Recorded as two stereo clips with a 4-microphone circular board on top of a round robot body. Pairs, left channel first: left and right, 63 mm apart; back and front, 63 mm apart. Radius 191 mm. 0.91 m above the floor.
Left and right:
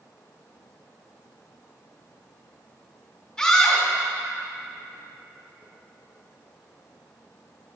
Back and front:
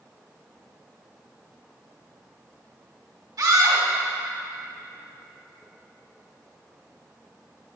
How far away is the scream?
About 2 m.